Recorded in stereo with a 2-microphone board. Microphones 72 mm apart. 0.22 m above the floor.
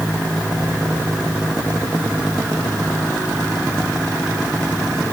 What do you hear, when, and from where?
Only background noise.